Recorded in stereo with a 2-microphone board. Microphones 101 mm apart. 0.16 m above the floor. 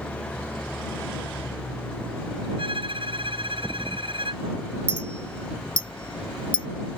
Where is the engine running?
15° left (ahead or behind).